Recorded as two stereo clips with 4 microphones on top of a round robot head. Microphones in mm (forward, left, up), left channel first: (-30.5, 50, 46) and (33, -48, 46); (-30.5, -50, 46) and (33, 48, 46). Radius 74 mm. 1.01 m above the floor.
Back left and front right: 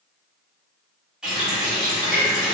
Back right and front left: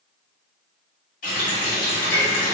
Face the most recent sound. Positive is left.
turn(degrees=-140)